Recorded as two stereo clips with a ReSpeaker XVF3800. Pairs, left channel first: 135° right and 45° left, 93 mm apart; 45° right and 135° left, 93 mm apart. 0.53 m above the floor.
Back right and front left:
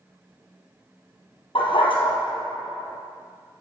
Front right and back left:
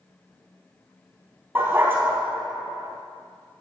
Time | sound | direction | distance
1.6 | a dog barking | 155° right | 3 m